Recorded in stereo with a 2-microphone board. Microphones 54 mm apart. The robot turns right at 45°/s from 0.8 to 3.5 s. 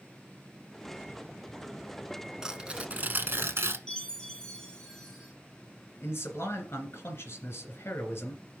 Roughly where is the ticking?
I don't hear ticking.